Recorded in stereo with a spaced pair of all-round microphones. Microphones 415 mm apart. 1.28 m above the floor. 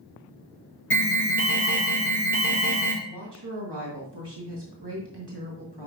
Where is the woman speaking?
70° right (ahead or behind), 1.6 m.